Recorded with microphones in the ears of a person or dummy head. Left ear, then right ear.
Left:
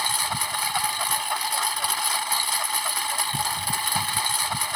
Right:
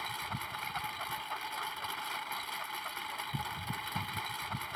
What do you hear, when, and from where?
0.0 s a lawn mower: 70° left (ahead or behind)